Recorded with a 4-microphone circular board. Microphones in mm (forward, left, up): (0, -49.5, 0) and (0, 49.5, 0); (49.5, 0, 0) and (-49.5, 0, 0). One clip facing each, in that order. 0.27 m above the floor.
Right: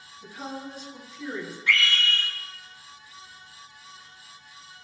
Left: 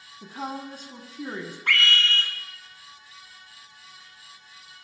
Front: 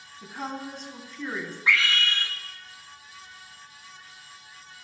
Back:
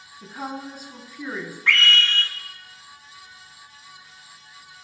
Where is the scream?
80° left, 3.5 m.